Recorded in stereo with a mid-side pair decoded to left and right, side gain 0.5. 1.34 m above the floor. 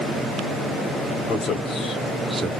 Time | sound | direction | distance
1.3 | a man speaking | 55° left | 1.5 m